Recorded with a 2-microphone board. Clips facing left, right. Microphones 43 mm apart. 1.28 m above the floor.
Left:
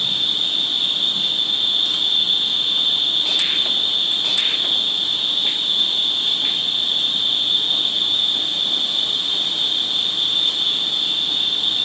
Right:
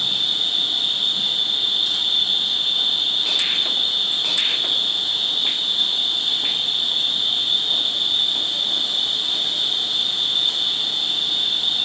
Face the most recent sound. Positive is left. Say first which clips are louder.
# left 1 dB
turn(degrees=75)  # may be behind; listen again after turning